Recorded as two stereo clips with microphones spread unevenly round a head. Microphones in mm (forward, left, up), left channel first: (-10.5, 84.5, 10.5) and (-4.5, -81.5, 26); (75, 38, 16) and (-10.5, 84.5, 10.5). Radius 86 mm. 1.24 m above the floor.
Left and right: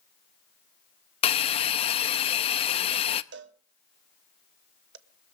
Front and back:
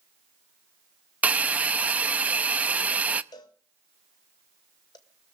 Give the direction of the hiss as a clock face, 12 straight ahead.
9 o'clock.